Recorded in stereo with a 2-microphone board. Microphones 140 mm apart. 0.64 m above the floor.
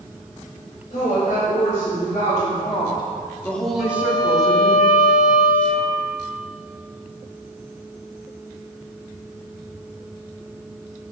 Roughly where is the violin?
Left.